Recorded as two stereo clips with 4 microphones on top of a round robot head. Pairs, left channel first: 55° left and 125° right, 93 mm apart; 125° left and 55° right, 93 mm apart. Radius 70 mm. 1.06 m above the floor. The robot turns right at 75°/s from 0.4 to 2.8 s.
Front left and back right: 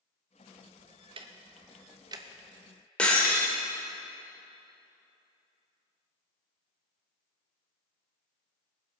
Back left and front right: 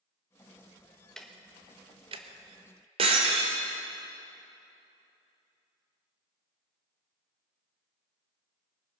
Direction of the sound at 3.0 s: 25° right.